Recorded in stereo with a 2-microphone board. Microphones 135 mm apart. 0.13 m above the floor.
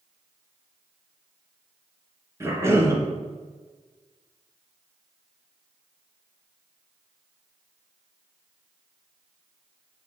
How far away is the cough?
About 1.9 m.